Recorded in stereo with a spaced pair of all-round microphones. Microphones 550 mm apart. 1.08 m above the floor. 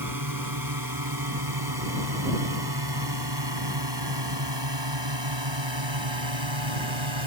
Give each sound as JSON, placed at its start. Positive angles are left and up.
{"t": 0.0, "sound": "a drone", "side_deg": -35}